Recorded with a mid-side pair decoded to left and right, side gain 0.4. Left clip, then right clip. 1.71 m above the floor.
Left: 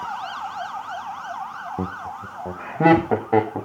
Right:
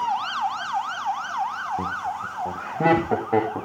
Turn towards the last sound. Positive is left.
turn(degrees=20)